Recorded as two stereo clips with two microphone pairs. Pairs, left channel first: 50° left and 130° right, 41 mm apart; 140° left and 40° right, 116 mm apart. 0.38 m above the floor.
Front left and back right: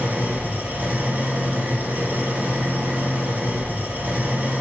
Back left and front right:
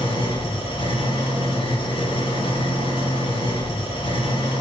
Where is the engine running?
Straight behind, 1.6 m.